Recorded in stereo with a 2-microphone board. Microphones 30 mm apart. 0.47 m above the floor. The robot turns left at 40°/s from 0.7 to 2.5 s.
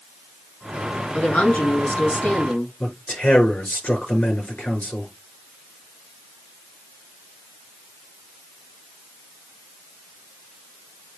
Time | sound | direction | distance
1.1 | a woman speaking | 125° left | 4.5 m
2.8 | a man speaking | 65° left (ahead or behind) | 6.5 m